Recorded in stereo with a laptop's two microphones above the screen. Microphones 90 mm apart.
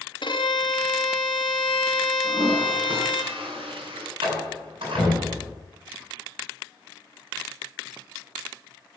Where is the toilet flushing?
75° right (ahead or behind), 7.5 m.